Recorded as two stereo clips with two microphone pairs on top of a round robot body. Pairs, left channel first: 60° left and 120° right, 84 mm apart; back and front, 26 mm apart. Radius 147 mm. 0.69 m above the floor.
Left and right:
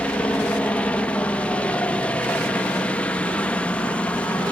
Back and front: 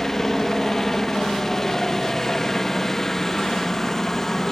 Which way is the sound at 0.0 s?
110° left.